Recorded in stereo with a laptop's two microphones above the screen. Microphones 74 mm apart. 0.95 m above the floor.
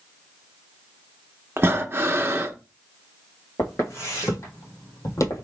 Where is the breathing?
35° right (ahead or behind), 0.6 m.